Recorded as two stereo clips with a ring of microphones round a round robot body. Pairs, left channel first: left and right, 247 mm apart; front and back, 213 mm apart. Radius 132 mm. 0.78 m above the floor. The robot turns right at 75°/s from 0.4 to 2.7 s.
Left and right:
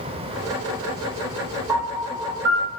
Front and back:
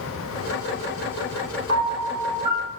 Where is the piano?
Straight behind, 0.8 m; by 2.7 s 105° right, 0.8 m.